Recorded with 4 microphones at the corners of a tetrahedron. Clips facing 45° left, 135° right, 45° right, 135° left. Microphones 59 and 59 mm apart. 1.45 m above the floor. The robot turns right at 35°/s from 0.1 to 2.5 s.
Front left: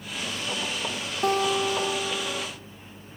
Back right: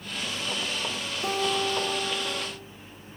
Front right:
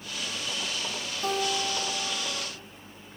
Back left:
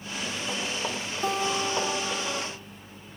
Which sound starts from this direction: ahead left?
A guitar, at 1.2 s.